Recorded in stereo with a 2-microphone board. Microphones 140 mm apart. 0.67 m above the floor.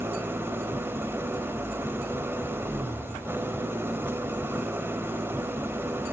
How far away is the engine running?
About 1.3 m.